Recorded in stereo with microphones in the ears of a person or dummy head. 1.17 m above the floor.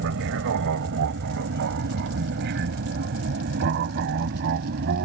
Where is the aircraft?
65° right (ahead or behind); by 5.1 s 50° right (ahead or behind).